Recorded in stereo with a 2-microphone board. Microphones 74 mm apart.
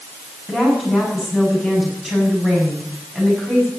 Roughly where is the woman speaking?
Centre.